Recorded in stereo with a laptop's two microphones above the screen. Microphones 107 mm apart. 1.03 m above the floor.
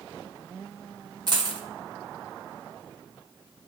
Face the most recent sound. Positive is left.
turn(degrees=-40)  # may be behind; listen again after turning